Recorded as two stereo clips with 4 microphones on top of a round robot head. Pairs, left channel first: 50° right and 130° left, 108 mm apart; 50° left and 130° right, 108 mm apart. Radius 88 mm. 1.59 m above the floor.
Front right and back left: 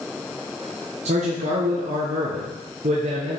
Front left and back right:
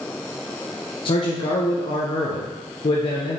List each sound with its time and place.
1.1 s a man speaking: 95° left, 0.9 m